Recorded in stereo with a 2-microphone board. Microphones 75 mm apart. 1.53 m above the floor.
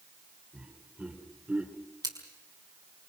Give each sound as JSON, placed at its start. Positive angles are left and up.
{"t": 0.5, "sound": "laughter", "side_deg": -30, "distance_m": 4.5}
{"t": 2.0, "sound": "scissors", "side_deg": -75, "distance_m": 5.5}